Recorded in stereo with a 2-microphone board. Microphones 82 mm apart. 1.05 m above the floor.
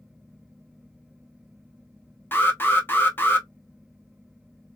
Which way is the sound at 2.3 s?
25° left (ahead or behind).